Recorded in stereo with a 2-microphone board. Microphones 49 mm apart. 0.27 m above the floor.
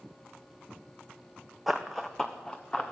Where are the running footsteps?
Centre (ahead or behind), 0.9 m; by 2.9 s 20° left (ahead or behind), 1.7 m.